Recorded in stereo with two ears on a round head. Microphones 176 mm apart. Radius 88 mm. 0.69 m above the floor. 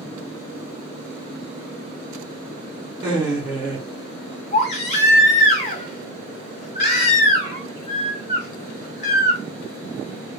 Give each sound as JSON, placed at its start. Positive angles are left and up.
{"t": 3.0, "sound": "laughter", "side_deg": -10, "distance_m": 1.8}
{"t": 4.5, "sound": "a baby crying", "side_deg": 35, "distance_m": 1.2}